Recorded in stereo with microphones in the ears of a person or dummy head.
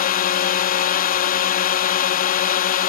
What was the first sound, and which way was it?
A drone, 35° left (ahead or behind).